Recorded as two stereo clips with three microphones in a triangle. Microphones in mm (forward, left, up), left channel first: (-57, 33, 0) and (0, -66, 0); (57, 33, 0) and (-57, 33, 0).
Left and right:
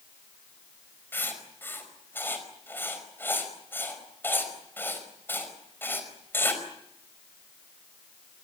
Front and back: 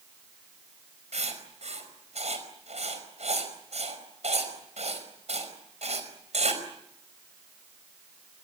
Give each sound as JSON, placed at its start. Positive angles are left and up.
{"t": 1.1, "sound": "writing", "azimuth_deg": -170, "distance_m": 5.0}